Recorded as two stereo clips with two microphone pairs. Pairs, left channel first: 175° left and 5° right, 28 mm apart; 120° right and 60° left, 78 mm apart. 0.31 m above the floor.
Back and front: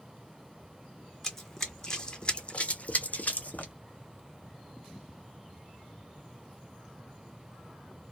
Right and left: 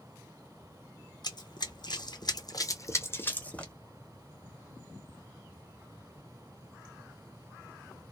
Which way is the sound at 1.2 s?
105° right.